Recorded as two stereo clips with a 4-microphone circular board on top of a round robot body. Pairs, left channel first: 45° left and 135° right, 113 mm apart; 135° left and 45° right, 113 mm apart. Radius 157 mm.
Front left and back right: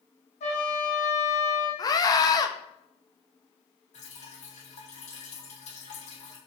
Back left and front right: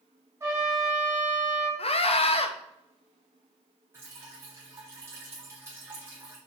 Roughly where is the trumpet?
Ahead.